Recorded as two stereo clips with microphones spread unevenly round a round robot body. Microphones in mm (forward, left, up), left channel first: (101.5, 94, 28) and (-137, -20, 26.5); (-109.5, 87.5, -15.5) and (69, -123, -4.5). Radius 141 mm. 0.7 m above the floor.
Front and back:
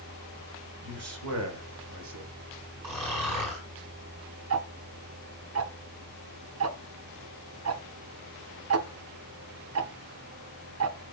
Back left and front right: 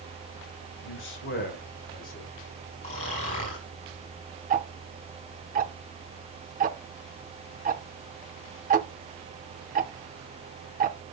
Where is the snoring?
165° right, 5.5 m.